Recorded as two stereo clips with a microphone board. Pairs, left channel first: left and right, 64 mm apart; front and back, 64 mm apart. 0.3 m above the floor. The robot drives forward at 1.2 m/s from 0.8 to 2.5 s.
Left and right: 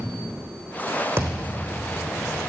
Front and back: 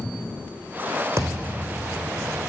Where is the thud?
140° right, 3.5 m; by 1.8 s 145° right, 4 m.